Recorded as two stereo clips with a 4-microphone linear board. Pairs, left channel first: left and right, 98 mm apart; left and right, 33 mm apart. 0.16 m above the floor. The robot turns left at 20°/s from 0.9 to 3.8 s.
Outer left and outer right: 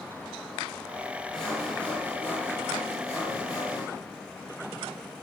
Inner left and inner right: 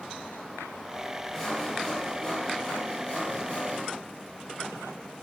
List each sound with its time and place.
1.3 s sawing: 170° left, 2.5 m; by 3.9 s 120° left, 2.5 m